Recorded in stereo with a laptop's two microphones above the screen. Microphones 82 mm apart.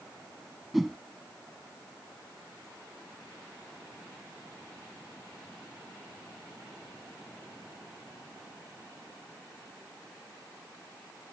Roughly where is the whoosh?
Centre.